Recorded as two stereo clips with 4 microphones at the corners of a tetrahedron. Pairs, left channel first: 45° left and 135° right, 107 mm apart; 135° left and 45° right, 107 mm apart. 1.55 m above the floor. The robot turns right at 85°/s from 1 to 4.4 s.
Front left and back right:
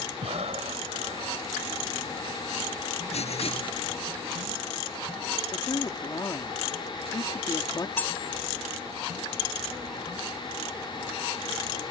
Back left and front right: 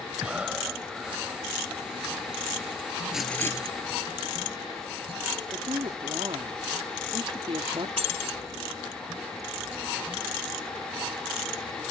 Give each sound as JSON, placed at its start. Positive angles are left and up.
{"t": 0.2, "sound": "breathing", "azimuth_deg": -125}
{"t": 3.1, "sound": "writing", "azimuth_deg": 40}
{"t": 5.5, "sound": "a woman speaking", "azimuth_deg": -5}
{"t": 8.0, "sound": "cutlery clinking", "azimuth_deg": -30}